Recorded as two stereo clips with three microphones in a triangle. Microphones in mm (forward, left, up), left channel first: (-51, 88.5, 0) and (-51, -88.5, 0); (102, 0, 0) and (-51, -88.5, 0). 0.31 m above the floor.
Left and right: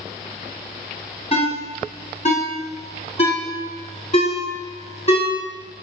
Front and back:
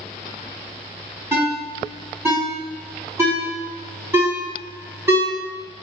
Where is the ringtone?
135° left, 1.7 m.